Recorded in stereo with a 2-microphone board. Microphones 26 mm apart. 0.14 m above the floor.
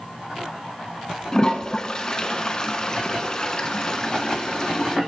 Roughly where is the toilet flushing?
Left.